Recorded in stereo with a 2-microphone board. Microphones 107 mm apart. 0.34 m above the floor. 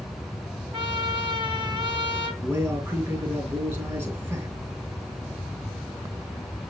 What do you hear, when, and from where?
0.7 s a trumpet: 45° right (ahead or behind), 2.5 m
2.4 s a man speaking: 25° right (ahead or behind), 5 m